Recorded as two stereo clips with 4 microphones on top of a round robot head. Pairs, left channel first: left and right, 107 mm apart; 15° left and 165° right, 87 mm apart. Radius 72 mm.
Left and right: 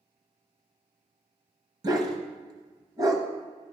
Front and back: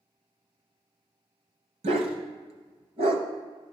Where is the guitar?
I don't hear a guitar.